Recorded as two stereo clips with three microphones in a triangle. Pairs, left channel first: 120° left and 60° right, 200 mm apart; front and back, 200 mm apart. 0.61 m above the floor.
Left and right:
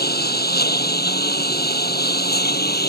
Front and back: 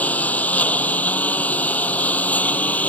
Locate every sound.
0.0 s a lawn mower: 80° left